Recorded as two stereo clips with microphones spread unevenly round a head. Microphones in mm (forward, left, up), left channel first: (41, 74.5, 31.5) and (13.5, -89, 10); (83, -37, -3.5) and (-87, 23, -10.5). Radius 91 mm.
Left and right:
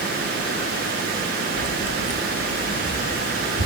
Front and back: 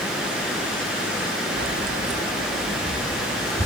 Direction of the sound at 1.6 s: 120° left.